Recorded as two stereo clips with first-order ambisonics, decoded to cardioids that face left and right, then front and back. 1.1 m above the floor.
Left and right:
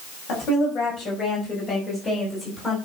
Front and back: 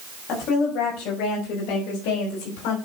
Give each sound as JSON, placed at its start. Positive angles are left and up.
{"t": 0.3, "sound": "a woman speaking", "azimuth_deg": 45, "distance_m": 6.0}